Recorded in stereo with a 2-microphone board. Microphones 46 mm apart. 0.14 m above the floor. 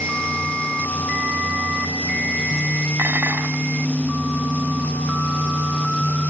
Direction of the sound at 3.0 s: 45° right (ahead or behind).